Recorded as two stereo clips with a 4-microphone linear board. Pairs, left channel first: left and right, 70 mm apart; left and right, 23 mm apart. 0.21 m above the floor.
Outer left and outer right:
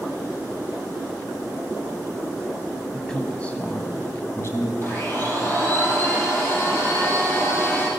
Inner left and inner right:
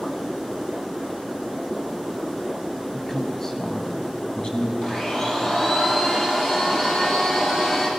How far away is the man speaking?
About 1.1 m.